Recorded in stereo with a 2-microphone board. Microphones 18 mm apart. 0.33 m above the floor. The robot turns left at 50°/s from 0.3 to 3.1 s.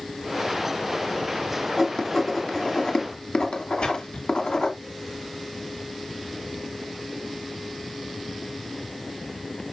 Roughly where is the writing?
Centre.